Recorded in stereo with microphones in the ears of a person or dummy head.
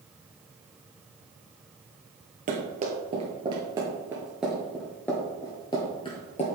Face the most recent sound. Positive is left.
turn(degrees=35)  # may be behind; listen again after turning